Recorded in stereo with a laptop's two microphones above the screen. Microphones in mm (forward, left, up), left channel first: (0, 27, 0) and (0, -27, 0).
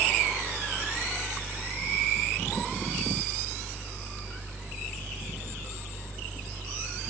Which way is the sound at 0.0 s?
90° right.